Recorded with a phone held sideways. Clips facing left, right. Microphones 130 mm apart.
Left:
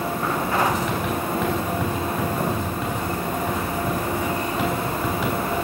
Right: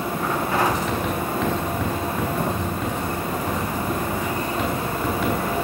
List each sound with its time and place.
0.7 s writing: centre (ahead or behind), 4 m